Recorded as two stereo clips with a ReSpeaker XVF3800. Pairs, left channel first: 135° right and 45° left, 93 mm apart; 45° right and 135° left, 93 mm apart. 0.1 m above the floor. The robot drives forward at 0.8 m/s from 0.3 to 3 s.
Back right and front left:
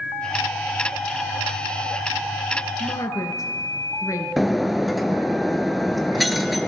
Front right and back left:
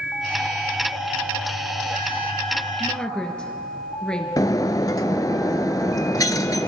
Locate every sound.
2.8 s a woman speaking: 110° right, 1.5 m; by 4.3 s 120° right, 1.6 m
4.4 s breaking glass: 45° right, 0.6 m